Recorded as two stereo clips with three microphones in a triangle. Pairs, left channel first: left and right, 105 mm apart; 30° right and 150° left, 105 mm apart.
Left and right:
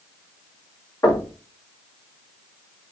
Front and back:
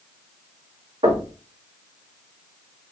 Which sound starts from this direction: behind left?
Knocking, at 1.0 s.